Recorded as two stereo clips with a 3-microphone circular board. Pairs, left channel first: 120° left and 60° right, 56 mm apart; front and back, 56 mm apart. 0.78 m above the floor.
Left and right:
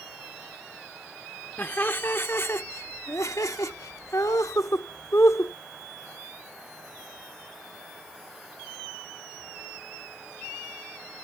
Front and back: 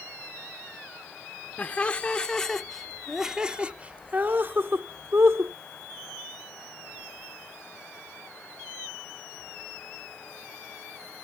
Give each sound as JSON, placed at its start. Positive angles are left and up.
{"t": 1.6, "sound": "laughter", "azimuth_deg": 60}